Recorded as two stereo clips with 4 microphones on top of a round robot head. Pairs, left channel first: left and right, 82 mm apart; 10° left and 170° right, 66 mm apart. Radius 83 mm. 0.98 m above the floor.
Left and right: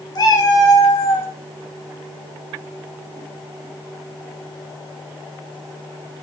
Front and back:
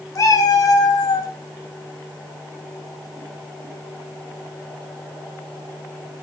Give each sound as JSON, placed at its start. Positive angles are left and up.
{"t": 0.1, "sound": "a cat meowing", "azimuth_deg": 50, "distance_m": 3.5}